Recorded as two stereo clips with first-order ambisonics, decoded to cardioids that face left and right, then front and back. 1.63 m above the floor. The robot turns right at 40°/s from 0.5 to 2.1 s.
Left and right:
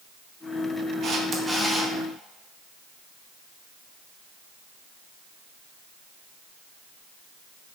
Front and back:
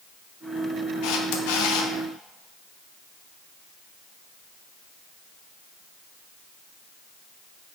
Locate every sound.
1.0 s a camera shutter: 30° right, 1.1 m; by 1.9 s 5° left, 1.1 m